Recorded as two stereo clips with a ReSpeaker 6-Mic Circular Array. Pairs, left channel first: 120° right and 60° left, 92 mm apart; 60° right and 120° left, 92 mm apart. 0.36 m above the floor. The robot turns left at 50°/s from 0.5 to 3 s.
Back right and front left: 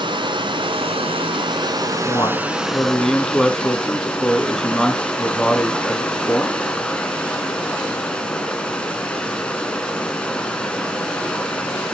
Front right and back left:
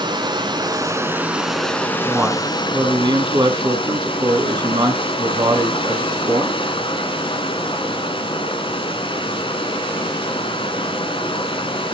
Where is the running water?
85° left, 2.5 m; by 11.9 s 40° right, 2.5 m.